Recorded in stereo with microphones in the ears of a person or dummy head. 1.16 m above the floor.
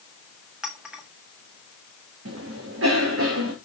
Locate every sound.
0.6 s a clink: 5° right (ahead or behind), 1.7 m
2.2 s a cough: 70° right (ahead or behind), 2.5 m